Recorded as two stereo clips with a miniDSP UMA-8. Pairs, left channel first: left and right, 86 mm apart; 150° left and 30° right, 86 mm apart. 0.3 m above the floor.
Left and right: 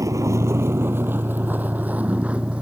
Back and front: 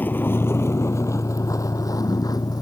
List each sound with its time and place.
0.0 s a vehicle: 140° right; by 2.6 s 165° right